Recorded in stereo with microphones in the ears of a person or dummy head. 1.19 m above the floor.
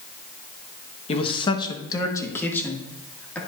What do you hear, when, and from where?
1.1 s a man speaking: 35° left (ahead or behind), 1.3 m; by 3.4 s 10° left (ahead or behind), 2.5 m